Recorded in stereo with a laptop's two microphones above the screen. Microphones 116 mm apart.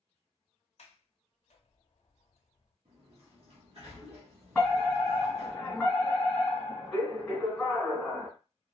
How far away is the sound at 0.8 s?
About 0.6 m.